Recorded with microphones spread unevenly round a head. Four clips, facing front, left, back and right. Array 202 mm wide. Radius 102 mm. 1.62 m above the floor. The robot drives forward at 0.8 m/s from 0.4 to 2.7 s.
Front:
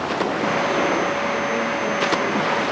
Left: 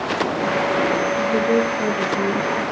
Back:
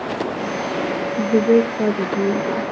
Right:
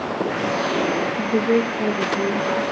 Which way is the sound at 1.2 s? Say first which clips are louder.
Right 1 dB, back 7 dB; 170° right.